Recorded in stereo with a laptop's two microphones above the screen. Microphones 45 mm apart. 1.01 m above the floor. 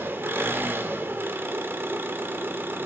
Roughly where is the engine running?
Right.